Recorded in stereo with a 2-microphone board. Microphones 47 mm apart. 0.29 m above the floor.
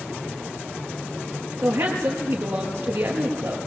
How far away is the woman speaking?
About 5 m.